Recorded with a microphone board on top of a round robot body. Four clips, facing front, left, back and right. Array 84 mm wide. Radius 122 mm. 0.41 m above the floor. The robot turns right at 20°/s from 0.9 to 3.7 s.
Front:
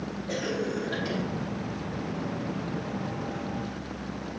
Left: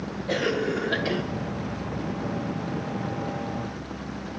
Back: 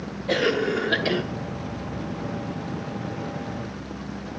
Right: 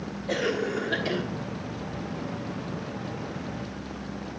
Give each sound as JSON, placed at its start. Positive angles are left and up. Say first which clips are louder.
{"t": 0.3, "sound": "a cough", "louder": "left 2 dB, back 9 dB", "azimuth_deg": 175, "distance_m": 1.3}